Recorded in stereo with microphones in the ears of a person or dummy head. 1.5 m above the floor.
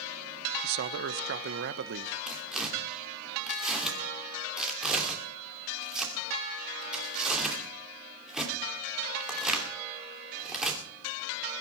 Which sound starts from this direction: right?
A man speaking, at 0.6 s.